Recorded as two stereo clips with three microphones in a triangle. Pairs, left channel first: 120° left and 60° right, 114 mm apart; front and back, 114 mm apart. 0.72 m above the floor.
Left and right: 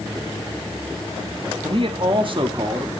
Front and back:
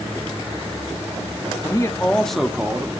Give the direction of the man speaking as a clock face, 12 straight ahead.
1 o'clock.